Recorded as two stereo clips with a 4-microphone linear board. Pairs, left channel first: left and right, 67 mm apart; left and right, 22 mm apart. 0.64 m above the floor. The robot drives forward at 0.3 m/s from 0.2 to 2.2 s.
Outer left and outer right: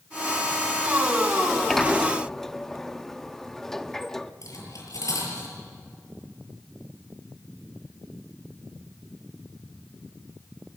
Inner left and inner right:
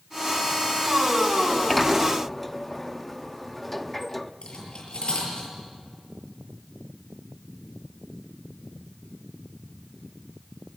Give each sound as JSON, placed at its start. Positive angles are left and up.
{"t": 1.4, "sound": "a sliding door", "side_deg": 5, "distance_m": 0.8}
{"t": 4.4, "sound": "cutlery clinking", "side_deg": 60, "distance_m": 7.0}